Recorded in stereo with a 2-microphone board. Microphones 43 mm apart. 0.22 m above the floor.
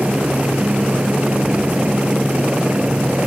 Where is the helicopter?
30° right (ahead or behind).